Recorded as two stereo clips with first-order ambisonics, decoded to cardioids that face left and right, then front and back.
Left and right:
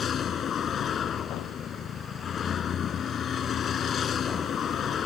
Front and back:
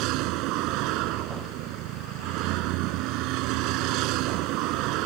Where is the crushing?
I don't hear crushing.